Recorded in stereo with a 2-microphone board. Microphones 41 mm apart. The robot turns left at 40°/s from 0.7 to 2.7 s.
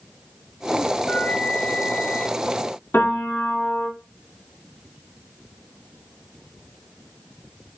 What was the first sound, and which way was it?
A flute, 145° left.